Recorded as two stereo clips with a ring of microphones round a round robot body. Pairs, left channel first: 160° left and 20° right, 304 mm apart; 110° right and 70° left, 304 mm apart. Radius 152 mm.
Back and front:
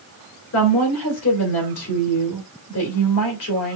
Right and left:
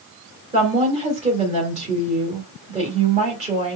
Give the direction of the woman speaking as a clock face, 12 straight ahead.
8 o'clock.